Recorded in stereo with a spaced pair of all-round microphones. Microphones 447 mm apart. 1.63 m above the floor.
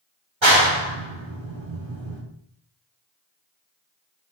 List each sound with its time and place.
0.4 s a clap: 85° right, 3.5 m